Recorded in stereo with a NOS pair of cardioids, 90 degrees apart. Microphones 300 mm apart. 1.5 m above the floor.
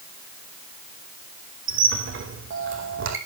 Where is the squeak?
45° right, 5 m.